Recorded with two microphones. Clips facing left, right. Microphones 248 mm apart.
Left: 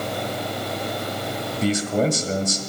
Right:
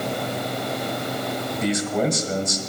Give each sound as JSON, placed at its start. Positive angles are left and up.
{"t": 1.6, "sound": "a man speaking", "side_deg": 30, "distance_m": 1.5}